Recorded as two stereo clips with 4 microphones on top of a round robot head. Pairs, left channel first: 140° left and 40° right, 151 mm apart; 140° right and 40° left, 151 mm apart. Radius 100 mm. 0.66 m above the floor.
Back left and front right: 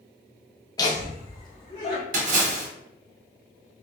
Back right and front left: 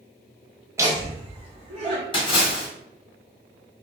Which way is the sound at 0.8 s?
100° left.